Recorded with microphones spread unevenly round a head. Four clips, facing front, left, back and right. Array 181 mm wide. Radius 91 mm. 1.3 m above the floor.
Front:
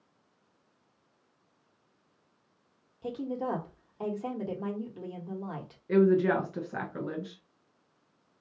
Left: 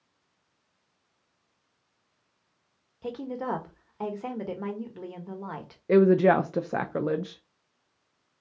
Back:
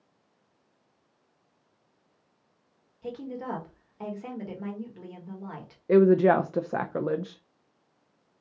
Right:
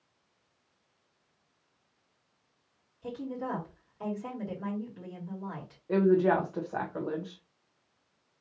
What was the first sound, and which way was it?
A woman speaking, 45° left.